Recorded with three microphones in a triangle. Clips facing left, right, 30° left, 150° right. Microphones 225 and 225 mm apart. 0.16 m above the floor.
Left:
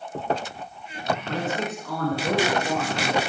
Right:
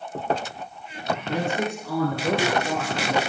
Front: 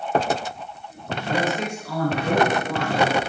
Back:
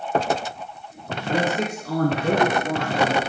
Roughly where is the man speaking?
Behind right.